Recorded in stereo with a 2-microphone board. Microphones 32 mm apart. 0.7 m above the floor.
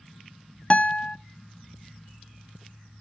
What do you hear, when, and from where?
0.7 s a guitar: 35° left (ahead or behind), 0.7 m